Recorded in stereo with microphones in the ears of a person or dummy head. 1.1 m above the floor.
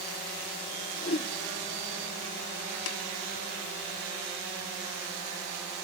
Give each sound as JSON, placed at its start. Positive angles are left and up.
{"t": 1.0, "sound": "a whoosh", "side_deg": 40, "distance_m": 0.7}
{"t": 2.9, "sound": "tapping", "side_deg": 80, "distance_m": 1.8}